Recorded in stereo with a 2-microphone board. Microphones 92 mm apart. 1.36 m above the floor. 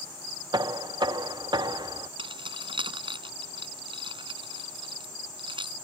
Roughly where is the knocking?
Right.